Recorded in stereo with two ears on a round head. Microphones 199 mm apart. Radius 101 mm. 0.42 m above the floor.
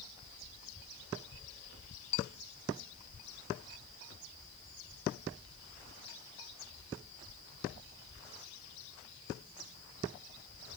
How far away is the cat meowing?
No cat meowing in this recording.